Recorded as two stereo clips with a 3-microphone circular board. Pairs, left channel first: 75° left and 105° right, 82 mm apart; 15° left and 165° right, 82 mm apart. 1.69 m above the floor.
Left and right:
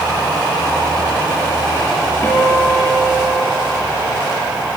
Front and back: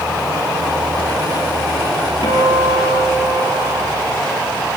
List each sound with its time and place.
2.2 s a guitar: 15° left, 7 m